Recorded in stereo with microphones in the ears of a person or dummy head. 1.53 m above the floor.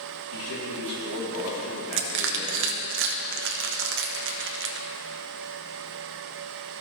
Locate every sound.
0.3 s a man speaking: 70° left (ahead or behind), 2.5 m; by 2.9 s 80° left, 4 m
1.9 s crushing: 55° right (ahead or behind), 0.7 m